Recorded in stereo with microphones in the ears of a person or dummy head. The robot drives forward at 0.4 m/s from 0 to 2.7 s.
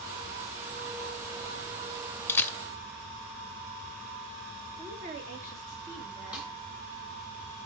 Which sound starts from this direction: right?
A woman speaking, at 4.8 s.